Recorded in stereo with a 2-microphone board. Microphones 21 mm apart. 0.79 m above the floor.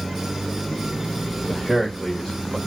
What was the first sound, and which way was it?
A man speaking, 35° left (ahead or behind).